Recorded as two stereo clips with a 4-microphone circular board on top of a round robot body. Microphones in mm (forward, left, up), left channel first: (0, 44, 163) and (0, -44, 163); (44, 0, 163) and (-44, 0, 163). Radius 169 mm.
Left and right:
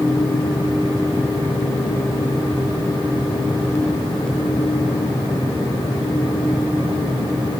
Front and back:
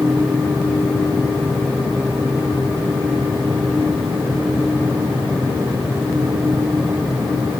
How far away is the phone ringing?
I don't hear a phone ringing.